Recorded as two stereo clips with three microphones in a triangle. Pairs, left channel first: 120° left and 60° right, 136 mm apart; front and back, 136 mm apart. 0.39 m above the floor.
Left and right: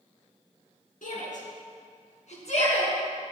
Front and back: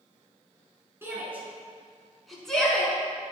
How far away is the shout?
About 4 m.